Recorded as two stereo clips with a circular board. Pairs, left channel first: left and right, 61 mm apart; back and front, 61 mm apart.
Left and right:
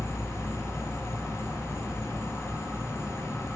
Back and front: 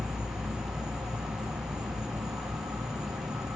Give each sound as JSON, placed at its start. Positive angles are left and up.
{"t": 0.0, "sound": "an insect", "azimuth_deg": -10, "distance_m": 1.2}